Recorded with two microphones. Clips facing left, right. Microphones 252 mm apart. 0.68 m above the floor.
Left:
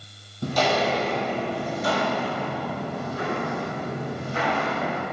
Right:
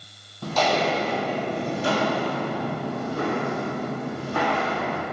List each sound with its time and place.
0.4 s footsteps: 15° left (ahead or behind), 0.9 m; by 5.0 s 50° right (ahead or behind), 2 m